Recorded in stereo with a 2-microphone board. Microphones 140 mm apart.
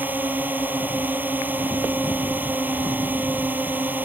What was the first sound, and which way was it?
A drone, 10° right (ahead or behind).